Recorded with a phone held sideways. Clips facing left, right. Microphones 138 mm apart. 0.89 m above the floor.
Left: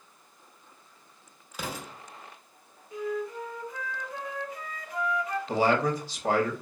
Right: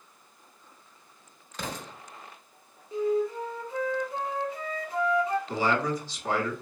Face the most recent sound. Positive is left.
turn(degrees=55)  # may be behind; listen again after turning